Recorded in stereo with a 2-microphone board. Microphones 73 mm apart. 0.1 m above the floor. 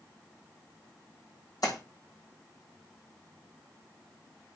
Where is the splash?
55° left (ahead or behind), 5 m.